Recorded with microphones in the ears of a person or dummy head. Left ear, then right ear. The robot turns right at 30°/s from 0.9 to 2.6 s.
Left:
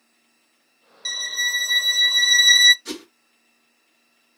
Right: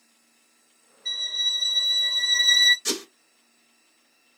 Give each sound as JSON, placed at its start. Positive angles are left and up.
{"t": 1.1, "sound": "a violin", "azimuth_deg": 95, "distance_m": 0.6}
{"t": 2.9, "sound": "a whoosh", "side_deg": -60, "distance_m": 1.4}